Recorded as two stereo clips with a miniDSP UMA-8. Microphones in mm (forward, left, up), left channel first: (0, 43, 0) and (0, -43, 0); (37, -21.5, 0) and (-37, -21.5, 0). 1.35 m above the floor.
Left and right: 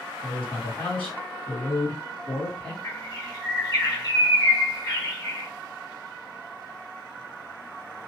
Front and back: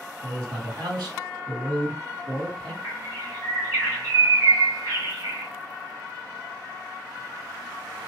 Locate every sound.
0.2 s a man speaking: 160° left, 2.5 m
2.8 s a bird: 140° left, 2 m